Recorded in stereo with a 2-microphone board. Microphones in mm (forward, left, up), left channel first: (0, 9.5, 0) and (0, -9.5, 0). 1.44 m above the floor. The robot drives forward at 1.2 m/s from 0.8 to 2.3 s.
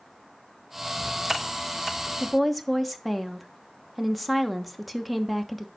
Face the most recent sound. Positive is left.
turn(degrees=0)  # may be behind; listen again after turning